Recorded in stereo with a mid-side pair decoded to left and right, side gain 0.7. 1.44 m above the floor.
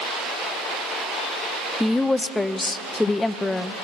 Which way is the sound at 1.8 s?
10° left.